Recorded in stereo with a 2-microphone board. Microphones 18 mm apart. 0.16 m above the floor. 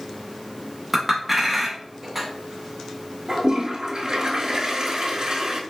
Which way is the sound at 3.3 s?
50° right (ahead or behind).